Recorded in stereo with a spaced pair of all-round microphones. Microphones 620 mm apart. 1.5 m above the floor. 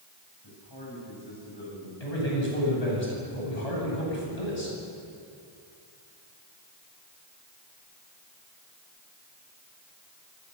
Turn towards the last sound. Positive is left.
turn(degrees=90)